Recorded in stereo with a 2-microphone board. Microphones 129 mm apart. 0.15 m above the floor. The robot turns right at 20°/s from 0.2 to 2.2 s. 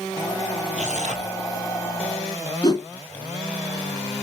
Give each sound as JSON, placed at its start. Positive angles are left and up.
{"t": 0.7, "sound": "tearing paper", "side_deg": -70, "distance_m": 1.3}
{"t": 2.6, "sound": "a whoosh", "side_deg": 30, "distance_m": 1.4}